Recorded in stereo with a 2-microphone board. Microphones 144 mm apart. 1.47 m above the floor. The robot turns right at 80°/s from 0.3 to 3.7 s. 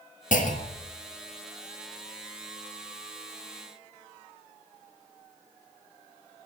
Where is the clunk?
95° left, 1.6 m; by 0.9 s 140° left, 1.6 m.